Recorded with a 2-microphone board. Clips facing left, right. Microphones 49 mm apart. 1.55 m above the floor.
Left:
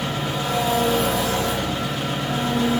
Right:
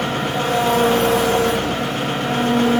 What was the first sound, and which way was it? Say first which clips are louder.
An engine running: right 5 dB; 55° right (ahead or behind).